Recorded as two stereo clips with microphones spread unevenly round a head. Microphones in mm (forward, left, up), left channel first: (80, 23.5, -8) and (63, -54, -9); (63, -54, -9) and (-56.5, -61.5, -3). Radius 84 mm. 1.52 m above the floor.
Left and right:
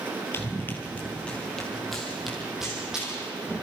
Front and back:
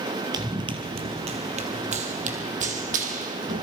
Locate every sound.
0.3 s running footsteps: 135° left, 2 m; by 3.6 s 175° left, 4.5 m